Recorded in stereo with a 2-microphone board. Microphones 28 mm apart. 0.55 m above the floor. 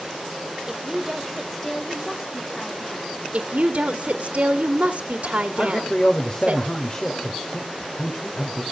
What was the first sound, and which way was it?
A woman speaking, 20° right (ahead or behind).